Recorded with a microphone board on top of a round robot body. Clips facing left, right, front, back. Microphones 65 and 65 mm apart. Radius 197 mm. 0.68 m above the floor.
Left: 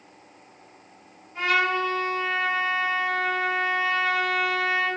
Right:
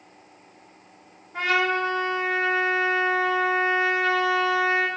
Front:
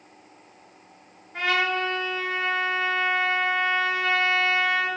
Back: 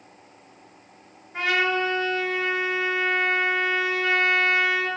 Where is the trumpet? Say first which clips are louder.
Even, back 1 dB; 100° right, 5 m.